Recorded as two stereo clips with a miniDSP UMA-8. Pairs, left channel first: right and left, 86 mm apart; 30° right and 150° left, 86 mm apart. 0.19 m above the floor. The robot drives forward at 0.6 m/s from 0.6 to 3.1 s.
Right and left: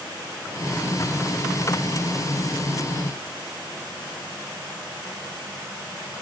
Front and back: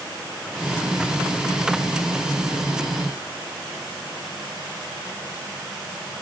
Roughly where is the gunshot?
No gunshot in this recording.